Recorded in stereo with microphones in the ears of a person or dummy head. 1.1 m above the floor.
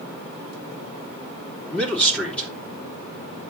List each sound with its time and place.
1.7 s a man speaking: 10° left (ahead or behind), 3.5 m